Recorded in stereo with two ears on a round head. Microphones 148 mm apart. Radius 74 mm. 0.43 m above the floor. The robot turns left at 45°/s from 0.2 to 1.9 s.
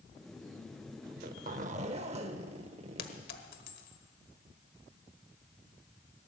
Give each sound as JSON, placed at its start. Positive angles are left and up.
{"t": 1.1, "sound": "a zipper", "azimuth_deg": -90, "distance_m": 0.8}
{"t": 3.0, "sound": "a clink", "side_deg": 60, "distance_m": 1.3}